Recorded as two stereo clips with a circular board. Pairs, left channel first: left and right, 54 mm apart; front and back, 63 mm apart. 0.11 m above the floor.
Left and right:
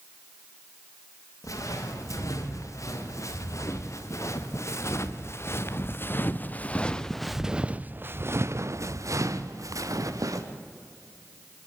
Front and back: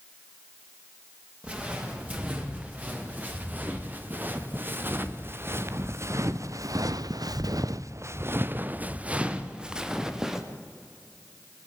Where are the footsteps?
110° left, 4.5 m; by 10.4 s 95° right, 2 m.